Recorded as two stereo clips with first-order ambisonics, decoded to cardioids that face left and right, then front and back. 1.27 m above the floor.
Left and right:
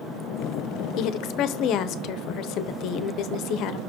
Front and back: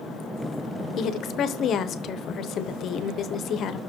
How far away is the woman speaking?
About 0.7 m.